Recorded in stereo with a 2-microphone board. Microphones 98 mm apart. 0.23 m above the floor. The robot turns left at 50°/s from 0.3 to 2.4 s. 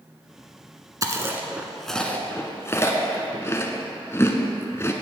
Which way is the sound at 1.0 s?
35° right (ahead or behind).